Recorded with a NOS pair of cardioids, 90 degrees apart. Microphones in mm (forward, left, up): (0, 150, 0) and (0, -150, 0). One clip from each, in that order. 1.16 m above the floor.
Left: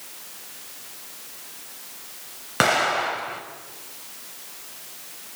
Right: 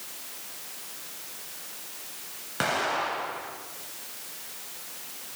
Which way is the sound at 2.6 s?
55° left.